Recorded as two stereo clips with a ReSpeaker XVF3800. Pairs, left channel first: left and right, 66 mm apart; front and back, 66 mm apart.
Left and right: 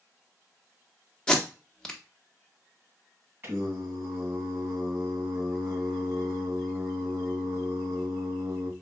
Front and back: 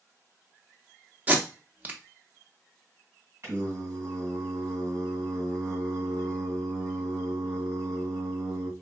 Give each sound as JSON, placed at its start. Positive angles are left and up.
{"t": 1.3, "sound": "tape being pulled", "azimuth_deg": 155, "distance_m": 0.7}
{"t": 3.4, "sound": "singing", "azimuth_deg": -135, "distance_m": 1.9}